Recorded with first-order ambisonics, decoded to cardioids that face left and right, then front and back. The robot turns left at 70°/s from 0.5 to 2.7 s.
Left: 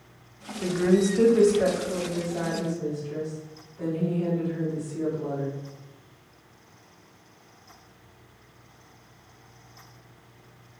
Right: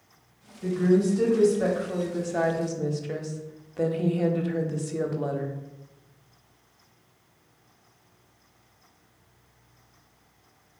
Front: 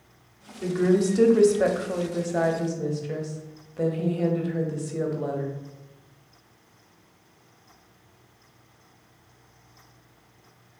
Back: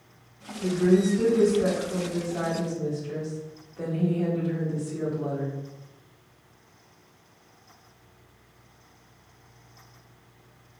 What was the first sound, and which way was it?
A woman speaking, 80° left.